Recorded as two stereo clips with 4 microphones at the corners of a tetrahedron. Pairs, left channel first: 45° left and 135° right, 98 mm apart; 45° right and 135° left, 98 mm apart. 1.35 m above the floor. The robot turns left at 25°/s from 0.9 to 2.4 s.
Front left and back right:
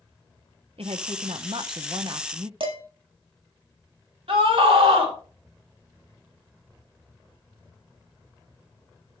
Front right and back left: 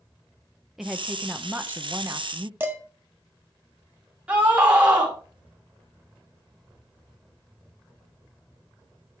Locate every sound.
0.8 s a woman speaking: 140° right, 0.8 m; by 2.5 s 175° right, 0.8 m
2.6 s dishes clattering: 160° right, 1.6 m
4.3 s a scream: 150° right, 4 m